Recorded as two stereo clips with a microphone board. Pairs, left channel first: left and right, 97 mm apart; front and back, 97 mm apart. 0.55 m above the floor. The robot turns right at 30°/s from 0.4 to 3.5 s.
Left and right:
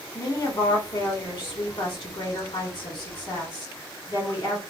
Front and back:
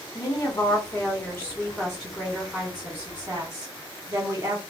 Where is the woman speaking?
40° left, 1.6 m; by 4.6 s 130° left, 1.6 m.